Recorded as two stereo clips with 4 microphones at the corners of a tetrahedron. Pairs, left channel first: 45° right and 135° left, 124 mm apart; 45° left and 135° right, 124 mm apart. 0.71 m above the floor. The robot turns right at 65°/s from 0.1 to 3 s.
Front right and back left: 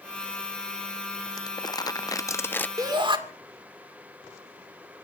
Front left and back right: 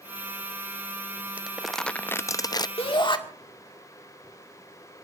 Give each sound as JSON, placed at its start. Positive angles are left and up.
{"t": 1.4, "sound": "crumpling", "azimuth_deg": -65, "distance_m": 0.5}
{"t": 2.8, "sound": "a shout", "azimuth_deg": 75, "distance_m": 2.0}